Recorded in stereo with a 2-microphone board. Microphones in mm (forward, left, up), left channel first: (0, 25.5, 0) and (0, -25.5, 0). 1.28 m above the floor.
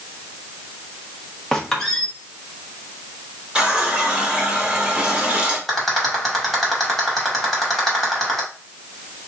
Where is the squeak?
10° left (ahead or behind), 1.1 m.